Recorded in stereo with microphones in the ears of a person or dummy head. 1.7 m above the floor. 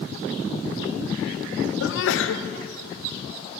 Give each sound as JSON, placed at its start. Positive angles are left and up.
{"t": 1.8, "sound": "a sneeze", "side_deg": 75, "distance_m": 0.6}